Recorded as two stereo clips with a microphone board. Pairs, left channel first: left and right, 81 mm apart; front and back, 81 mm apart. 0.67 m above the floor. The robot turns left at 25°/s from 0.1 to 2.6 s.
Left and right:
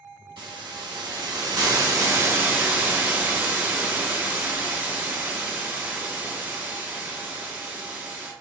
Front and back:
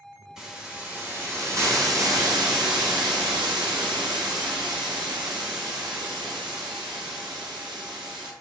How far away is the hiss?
About 0.8 m.